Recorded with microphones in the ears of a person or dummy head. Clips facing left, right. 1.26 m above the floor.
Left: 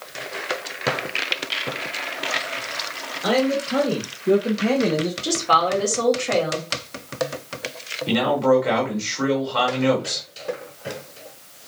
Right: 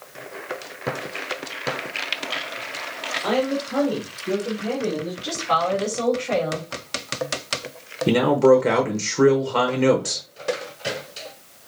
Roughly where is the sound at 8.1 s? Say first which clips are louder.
Right 3 dB; right.